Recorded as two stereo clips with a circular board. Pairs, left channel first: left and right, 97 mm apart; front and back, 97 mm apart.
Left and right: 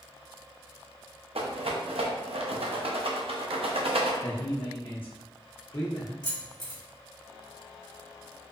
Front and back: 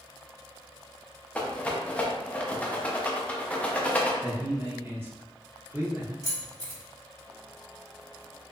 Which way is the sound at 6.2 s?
130° left.